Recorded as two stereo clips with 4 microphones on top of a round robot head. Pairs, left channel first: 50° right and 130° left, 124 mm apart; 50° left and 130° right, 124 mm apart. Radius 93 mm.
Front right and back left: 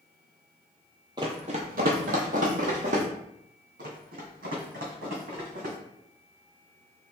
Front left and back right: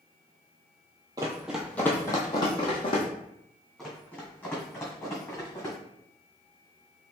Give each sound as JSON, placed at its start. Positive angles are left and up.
{"t": 1.2, "sound": "running footsteps", "azimuth_deg": 175, "distance_m": 0.6}
{"t": 3.8, "sound": "running footsteps", "azimuth_deg": 135, "distance_m": 1.4}